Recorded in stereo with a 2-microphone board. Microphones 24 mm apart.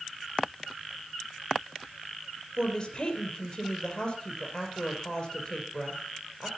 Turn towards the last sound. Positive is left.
turn(degrees=35)  # may be behind; listen again after turning